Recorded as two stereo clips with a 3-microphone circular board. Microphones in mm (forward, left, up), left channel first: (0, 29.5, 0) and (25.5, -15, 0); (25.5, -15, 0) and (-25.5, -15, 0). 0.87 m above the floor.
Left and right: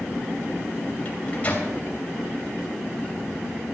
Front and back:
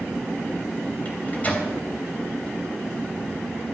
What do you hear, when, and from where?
1.1 s a microwave: 55° left, 3 m